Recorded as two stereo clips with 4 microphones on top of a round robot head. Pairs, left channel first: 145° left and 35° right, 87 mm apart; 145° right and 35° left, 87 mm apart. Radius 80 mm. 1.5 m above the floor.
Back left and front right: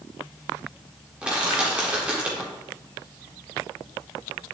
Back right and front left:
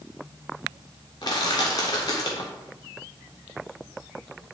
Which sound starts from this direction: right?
Crushing, at 1.2 s.